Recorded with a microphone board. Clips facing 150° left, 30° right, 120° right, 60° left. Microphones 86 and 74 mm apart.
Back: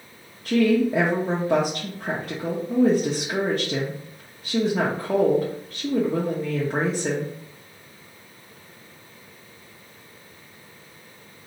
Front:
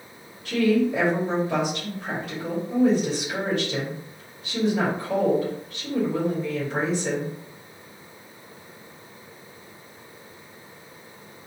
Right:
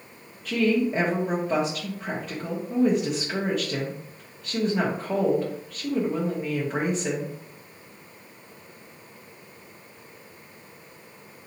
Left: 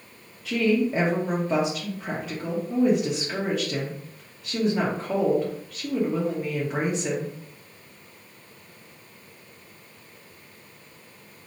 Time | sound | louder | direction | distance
0.5 | a woman speaking | back 2 dB, even | 145° left | 1.0 m